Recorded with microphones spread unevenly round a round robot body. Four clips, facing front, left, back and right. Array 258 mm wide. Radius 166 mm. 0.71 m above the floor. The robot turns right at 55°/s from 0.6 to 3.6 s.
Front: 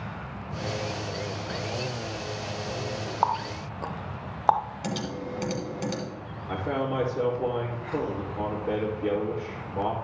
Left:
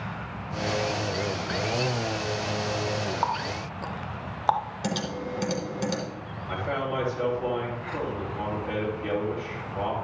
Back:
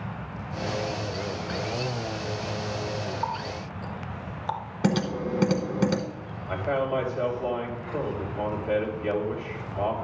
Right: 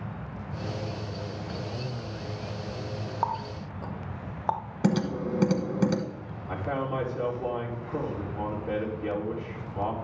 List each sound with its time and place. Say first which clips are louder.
3.2 s a running tap: left 2 dB, front 4 dB; 25° left, 0.6 m; by 4.7 s 45° left, 0.6 m
4.8 s typing on a keyboard: right 9 dB, back 6 dB; 140° right, 0.9 m
6.5 s a man speaking: left 1 dB, back 2 dB; 20° right, 2.5 m